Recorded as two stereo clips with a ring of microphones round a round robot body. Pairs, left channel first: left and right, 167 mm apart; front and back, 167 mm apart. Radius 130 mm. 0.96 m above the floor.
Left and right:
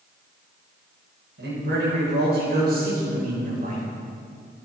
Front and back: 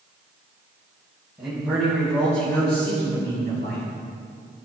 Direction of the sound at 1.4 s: 95° right.